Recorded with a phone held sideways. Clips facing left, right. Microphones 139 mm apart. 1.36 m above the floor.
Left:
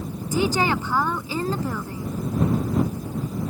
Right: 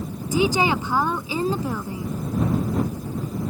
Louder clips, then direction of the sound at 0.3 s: Right 2 dB; 15° right (ahead or behind).